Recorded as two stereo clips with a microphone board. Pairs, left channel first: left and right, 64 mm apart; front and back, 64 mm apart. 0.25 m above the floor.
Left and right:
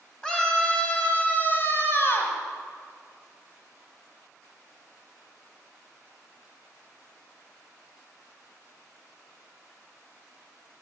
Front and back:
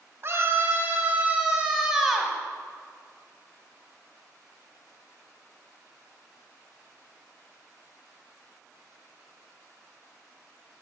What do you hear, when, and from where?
0.2 s a scream: 165° left, 1.5 m; by 2.4 s 90° left, 1.5 m